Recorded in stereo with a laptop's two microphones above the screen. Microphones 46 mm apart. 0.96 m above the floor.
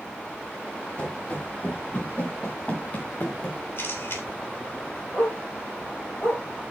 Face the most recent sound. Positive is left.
turn(degrees=55)  # may be behind; listen again after turning